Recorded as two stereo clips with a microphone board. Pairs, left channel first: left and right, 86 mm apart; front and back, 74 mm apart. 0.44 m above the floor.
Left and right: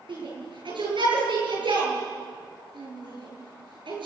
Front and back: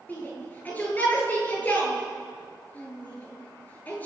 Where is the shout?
70° right, 8 m.